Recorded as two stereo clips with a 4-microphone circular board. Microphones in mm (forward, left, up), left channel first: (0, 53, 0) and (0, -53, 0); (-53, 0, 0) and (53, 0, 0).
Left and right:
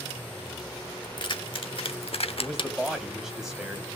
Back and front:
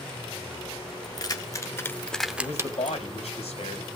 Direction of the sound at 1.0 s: 135° left.